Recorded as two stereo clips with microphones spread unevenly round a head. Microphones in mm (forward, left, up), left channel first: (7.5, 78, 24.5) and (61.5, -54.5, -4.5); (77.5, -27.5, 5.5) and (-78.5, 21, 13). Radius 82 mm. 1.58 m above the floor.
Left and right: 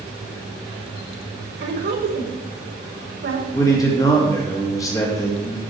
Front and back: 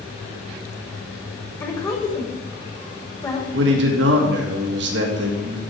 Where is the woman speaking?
85° right, 4 m.